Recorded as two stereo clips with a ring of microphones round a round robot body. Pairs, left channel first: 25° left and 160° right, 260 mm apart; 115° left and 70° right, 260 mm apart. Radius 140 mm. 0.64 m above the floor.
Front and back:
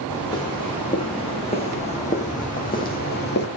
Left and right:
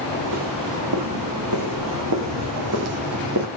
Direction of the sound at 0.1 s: 55° right.